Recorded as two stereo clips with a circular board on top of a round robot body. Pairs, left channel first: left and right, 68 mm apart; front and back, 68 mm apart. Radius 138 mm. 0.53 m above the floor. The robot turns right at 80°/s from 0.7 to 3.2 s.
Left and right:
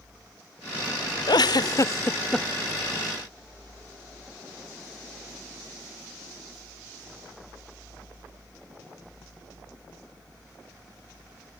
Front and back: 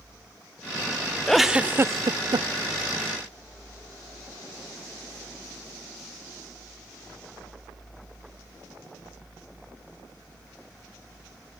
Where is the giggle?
85° left; by 2.5 s straight behind.